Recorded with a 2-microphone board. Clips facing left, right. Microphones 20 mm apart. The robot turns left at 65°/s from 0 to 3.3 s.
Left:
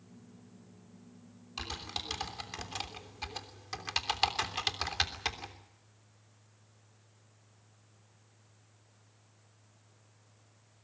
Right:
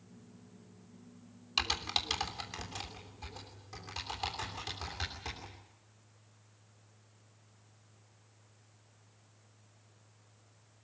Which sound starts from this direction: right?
Typing on a keyboard, at 1.6 s.